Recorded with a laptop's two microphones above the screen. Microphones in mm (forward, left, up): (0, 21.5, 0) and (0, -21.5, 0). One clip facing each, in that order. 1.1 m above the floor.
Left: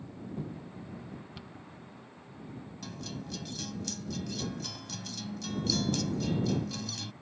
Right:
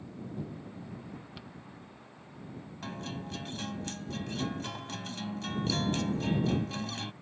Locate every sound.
1.4 s a cupboard door: 5° right (ahead or behind)
2.8 s a guitar: 35° right (ahead or behind)